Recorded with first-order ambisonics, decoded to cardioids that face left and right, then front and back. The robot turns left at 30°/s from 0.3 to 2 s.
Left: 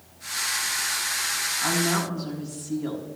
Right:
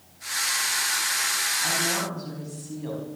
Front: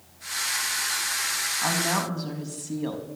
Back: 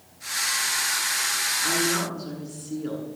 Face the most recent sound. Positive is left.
turn(degrees=5)